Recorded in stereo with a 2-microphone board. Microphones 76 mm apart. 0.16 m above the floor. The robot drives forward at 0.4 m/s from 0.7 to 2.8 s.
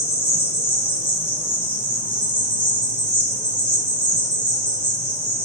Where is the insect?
25° left (ahead or behind), 1.8 m; by 5.5 s 20° left (ahead or behind), 2.5 m.